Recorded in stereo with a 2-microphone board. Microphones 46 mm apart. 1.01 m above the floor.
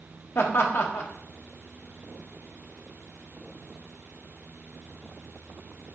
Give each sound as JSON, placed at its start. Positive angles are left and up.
{"t": 0.3, "sound": "laughter", "side_deg": 55, "distance_m": 1.0}